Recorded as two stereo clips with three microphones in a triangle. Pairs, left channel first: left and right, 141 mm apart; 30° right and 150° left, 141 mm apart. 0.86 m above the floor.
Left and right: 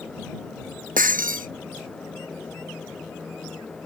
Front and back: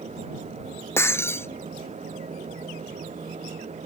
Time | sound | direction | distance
1.0 | breaking glass | 100° right | ?